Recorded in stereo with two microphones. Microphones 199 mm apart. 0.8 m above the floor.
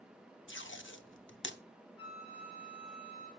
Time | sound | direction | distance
0.5 | tape being pulled | 80° left | 0.9 m
2.0 | a flute | 60° right (ahead or behind) | 4 m